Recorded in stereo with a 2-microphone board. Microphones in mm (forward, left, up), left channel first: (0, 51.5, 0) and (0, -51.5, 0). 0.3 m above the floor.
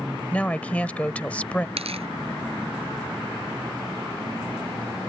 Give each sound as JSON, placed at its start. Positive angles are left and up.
{"t": 0.3, "sound": "a woman speaking", "side_deg": 15}
{"t": 1.8, "sound": "tearing paper", "side_deg": -75}